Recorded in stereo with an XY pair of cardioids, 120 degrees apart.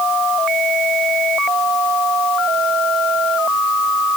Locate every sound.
Only background noise.